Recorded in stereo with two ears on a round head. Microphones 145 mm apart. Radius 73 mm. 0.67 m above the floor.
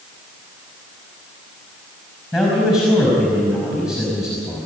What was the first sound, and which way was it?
A man speaking, 5° right (ahead or behind).